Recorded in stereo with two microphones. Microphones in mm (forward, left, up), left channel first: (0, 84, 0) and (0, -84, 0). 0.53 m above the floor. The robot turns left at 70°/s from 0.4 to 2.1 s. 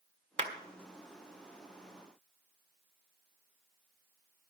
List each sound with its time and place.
0.4 s a clap: 40° right (ahead or behind), 1.6 m; by 0.5 s 45° right (ahead or behind), 1.6 m